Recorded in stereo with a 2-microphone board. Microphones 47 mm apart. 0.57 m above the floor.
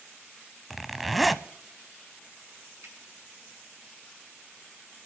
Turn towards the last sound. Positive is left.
turn(degrees=-80)